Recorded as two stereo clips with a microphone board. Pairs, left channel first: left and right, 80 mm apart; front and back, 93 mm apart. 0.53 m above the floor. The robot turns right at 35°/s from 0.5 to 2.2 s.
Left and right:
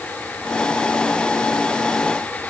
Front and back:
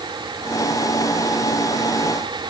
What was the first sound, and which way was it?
Only background noise.